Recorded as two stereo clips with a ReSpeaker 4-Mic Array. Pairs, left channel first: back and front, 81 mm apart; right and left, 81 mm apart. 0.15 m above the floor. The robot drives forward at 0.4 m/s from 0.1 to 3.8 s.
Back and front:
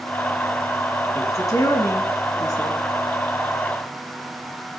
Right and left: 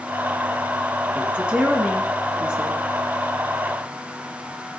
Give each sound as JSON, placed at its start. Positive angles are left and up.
{"t": 1.1, "sound": "a woman speaking", "azimuth_deg": 160, "distance_m": 2.0}